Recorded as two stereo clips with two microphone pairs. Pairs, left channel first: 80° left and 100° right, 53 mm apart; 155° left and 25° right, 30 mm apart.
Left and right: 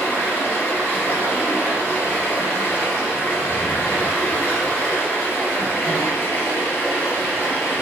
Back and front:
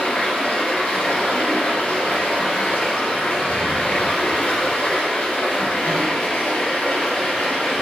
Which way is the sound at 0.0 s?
130° left.